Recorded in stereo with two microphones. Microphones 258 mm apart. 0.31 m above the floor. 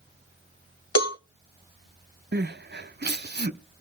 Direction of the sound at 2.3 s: 40° right (ahead or behind).